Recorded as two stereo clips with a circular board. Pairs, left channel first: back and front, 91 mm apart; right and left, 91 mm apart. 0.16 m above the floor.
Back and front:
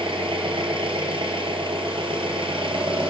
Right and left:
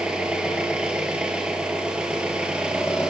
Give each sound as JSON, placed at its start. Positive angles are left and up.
{"t": 0.0, "sound": "an engine running", "azimuth_deg": 15, "distance_m": 1.5}